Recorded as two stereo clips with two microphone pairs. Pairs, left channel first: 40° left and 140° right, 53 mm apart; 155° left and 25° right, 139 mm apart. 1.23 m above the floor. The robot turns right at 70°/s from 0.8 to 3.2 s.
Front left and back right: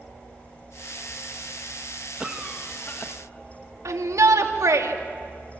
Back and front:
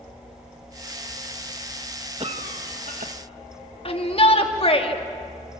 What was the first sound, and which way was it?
A cough, 70° right.